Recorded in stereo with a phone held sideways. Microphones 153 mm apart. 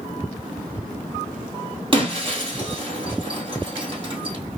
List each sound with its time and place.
1.9 s breaking glass: 35° right (ahead or behind), 1.8 m